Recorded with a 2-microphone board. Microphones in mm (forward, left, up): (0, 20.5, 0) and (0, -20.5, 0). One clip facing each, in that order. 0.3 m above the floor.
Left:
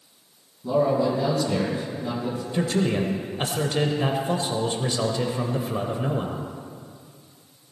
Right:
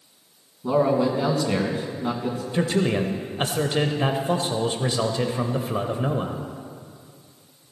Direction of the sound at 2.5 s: 20° right (ahead or behind).